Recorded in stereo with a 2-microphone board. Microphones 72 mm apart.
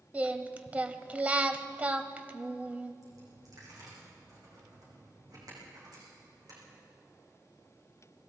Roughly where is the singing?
Right.